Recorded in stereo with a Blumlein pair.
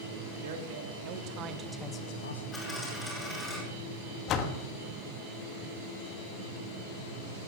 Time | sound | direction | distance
0.4 | a man speaking | 55° right | 2 m
2.5 | a dropped coin | 10° left | 7.5 m
4.3 | a door slam | 35° left | 1.3 m